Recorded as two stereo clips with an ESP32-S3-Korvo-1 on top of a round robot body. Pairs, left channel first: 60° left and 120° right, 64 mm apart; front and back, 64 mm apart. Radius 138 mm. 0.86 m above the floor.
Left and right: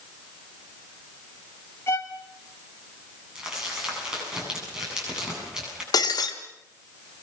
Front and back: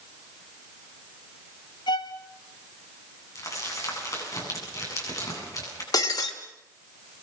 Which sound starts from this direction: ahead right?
Crumpling, at 3.4 s.